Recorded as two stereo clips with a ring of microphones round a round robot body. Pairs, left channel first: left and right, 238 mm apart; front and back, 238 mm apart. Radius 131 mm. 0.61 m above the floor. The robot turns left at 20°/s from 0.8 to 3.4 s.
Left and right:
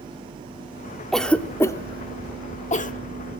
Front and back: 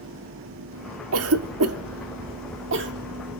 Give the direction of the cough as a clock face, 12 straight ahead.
6 o'clock.